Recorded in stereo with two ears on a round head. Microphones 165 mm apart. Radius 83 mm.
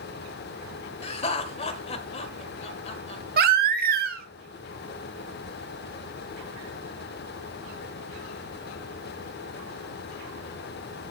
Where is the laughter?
35° left (ahead or behind), 1.5 m.